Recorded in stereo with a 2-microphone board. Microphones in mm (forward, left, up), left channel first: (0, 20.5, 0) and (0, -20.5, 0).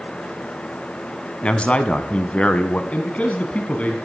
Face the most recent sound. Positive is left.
turn(degrees=35)  # may be behind; listen again after turning